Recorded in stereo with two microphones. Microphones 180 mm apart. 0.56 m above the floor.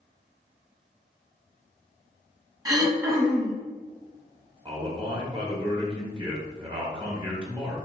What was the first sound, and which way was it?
Throat clearing, 20° right (ahead or behind).